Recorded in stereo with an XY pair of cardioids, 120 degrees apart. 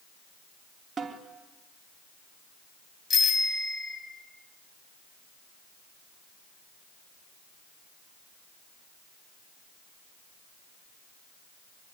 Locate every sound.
1.0 s a snare drum: 30° right, 3.5 m
3.1 s a bicycle bell: 35° left, 7 m